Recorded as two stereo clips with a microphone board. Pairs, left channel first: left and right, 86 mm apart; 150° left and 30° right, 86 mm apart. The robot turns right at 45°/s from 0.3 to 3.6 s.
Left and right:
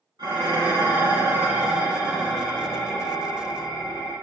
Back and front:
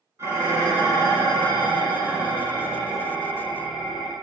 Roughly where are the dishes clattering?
Right.